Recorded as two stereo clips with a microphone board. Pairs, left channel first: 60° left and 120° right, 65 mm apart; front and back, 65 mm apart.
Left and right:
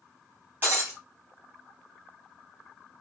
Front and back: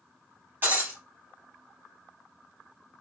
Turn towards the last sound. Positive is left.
turn(degrees=-155)